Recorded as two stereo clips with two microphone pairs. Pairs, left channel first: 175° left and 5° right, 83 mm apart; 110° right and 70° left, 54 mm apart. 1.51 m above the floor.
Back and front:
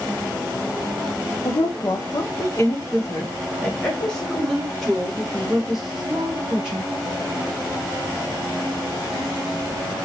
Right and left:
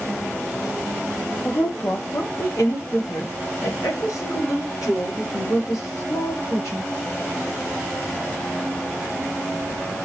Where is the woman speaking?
155° right, 1.1 m; by 6.9 s 85° right, 3 m.